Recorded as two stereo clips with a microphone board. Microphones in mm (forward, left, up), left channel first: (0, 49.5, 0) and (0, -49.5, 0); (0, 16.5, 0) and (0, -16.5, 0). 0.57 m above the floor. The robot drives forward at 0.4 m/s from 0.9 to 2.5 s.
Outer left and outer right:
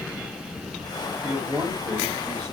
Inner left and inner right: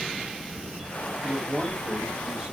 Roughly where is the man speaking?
Right.